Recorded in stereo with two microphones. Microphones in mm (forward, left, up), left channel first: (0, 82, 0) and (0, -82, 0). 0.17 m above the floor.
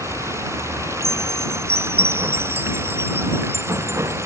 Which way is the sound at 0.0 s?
15° right (ahead or behind).